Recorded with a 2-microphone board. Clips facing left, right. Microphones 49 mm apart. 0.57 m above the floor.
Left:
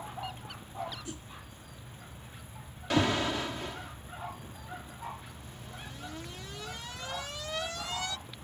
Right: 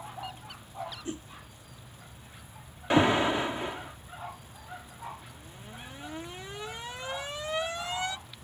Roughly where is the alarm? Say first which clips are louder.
Right 5 dB; right.